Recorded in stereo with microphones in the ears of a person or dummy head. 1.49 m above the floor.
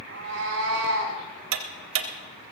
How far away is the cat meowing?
About 5 m.